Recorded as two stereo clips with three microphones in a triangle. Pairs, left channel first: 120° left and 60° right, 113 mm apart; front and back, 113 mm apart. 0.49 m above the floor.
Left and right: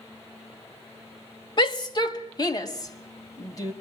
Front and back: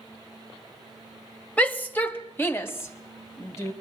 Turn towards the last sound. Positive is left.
turn(degrees=65)